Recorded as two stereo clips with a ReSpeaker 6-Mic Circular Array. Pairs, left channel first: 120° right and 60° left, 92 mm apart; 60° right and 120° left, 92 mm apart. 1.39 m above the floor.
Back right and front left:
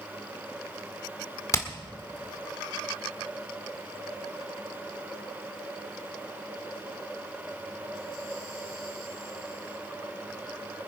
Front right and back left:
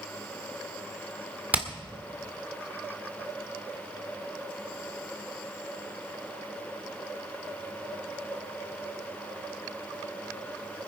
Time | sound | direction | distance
1.5 | hammering | 170° right | 1.7 m